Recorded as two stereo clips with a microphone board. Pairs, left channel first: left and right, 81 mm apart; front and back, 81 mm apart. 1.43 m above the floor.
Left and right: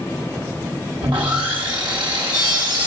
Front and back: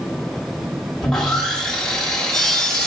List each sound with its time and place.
1.0 s sawing: 85° right, 1.5 m